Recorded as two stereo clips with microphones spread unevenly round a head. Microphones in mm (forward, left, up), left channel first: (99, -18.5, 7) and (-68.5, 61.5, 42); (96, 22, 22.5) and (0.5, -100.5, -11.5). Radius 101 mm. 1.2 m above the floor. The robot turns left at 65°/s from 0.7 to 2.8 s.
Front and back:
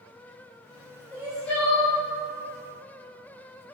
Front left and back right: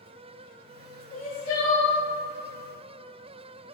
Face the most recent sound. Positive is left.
turn(degrees=-20)